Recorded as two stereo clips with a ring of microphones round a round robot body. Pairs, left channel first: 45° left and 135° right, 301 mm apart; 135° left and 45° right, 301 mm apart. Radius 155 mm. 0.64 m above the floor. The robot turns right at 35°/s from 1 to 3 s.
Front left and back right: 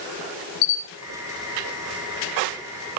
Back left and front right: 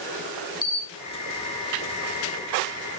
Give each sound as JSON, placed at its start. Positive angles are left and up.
{"t": 0.6, "sound": "a camera shutter", "azimuth_deg": 70, "distance_m": 3.5}